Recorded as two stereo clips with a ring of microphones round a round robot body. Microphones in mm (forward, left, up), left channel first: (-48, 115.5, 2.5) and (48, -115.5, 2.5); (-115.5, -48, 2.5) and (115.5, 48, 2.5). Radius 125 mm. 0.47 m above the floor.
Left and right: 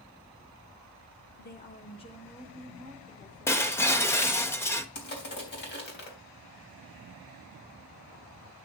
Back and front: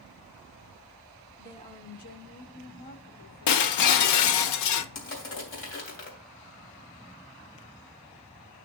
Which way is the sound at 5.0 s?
160° left.